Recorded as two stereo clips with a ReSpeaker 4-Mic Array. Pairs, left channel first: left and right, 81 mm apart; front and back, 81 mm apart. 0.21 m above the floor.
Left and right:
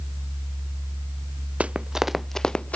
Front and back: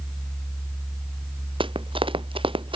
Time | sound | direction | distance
1.6 | running footsteps | 165° right | ?